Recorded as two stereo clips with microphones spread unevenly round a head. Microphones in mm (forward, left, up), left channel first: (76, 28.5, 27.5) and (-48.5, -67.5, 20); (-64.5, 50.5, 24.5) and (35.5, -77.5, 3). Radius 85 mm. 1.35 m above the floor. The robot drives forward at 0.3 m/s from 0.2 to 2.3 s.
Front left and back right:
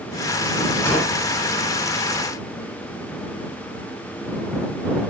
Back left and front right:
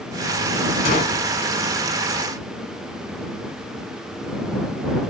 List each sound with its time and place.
0.8 s a gunshot: 110° left, 1.4 m; by 1.2 s 115° left, 1.5 m